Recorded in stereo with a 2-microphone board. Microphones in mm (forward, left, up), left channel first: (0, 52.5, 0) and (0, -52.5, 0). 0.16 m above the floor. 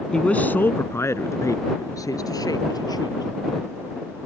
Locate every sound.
0.1 s a man speaking: 10° left (ahead or behind); by 3.2 s 40° left (ahead or behind)